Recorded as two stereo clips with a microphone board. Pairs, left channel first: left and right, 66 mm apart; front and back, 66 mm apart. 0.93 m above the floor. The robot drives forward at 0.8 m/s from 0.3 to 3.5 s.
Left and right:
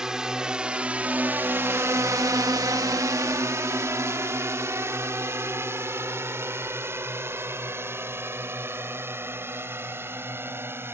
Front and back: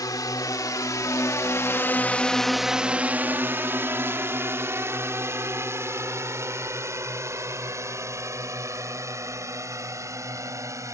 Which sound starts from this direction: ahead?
A drone, at 0.0 s.